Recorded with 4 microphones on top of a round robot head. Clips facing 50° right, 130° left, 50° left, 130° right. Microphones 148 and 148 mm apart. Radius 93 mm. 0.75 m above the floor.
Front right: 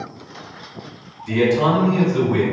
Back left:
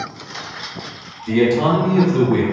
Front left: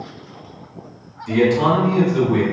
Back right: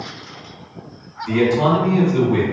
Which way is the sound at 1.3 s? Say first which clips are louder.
Back left 2 dB, even; 170° left.